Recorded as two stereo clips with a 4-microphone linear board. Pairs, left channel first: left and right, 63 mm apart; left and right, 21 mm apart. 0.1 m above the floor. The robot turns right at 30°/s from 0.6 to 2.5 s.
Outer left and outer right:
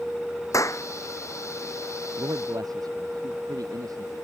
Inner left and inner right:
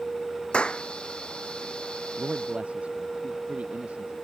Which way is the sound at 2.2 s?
85° right.